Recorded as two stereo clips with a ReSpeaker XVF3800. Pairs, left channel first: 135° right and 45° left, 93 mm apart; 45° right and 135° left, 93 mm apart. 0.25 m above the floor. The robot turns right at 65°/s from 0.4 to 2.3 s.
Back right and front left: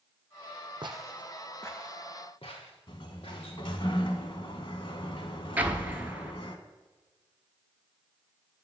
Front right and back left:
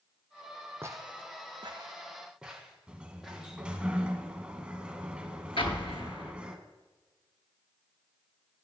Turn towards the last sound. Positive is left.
turn(degrees=-30)